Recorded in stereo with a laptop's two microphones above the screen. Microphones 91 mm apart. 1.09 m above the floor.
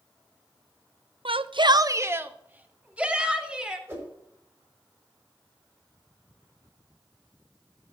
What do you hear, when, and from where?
1.2 s a shout: 75° right (ahead or behind), 0.5 m; by 3.8 s 10° right (ahead or behind), 3 m
3.9 s a whoosh: 20° right (ahead or behind), 5 m